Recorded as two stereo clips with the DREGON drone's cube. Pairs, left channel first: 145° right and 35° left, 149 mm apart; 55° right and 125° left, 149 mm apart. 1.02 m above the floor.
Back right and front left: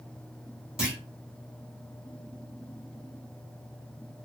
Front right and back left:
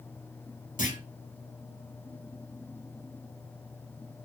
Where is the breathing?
No breathing in this recording.